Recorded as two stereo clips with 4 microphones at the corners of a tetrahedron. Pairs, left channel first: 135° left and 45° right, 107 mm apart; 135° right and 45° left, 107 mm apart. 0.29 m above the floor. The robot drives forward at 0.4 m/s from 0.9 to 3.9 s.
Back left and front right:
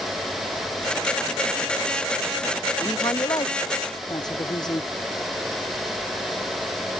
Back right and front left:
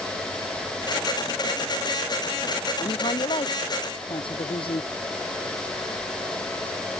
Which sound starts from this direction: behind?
A woman speaking, at 2.8 s.